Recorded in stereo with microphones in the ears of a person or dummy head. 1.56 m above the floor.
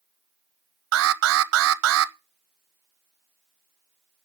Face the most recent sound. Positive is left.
turn(degrees=-75)  # may be behind; listen again after turning